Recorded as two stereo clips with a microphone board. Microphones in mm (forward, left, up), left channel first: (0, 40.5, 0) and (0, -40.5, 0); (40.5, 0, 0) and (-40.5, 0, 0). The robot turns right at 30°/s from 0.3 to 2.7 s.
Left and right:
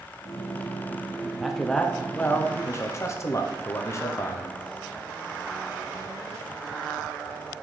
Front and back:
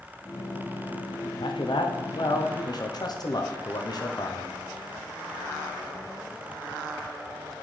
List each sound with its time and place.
1.4 s a man speaking: 5° right, 0.7 m; by 4.5 s 35° left, 0.7 m